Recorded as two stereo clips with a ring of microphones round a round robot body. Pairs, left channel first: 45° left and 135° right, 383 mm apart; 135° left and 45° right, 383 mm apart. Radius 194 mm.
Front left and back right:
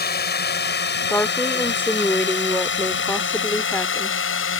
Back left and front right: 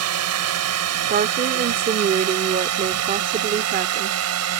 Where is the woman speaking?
30° right.